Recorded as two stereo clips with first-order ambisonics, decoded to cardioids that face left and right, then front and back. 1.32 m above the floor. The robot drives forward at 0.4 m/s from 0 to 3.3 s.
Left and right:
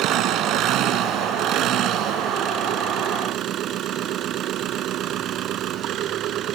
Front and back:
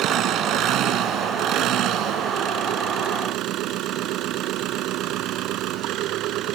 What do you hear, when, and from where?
0.0 s an engine running: 135° right; by 6.5 s 140° right